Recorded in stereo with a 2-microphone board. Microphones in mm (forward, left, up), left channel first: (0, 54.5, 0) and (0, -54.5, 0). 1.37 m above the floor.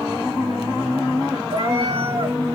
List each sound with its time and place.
1.5 s a cat meowing: 50° right (ahead or behind), 1.8 m